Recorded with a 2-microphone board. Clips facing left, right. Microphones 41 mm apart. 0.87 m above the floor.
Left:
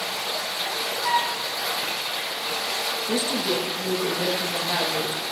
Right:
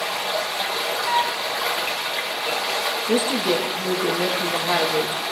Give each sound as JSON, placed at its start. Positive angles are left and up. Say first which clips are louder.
{"t": 0.0, "sound": "running water", "louder": "right 4 dB", "side_deg": -55, "distance_m": 0.9}
{"t": 1.0, "sound": "a flute", "louder": "right 1 dB", "side_deg": 90, "distance_m": 4.5}
{"t": 3.1, "sound": "a woman speaking", "louder": "right 5 dB", "side_deg": -40, "distance_m": 0.8}